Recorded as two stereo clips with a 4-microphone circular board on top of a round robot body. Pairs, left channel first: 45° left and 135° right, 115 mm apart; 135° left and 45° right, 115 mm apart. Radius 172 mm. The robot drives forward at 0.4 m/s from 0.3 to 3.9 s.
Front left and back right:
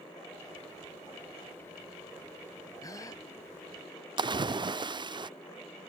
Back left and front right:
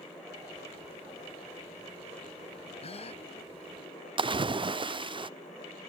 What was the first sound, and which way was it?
A gasp, 105° left.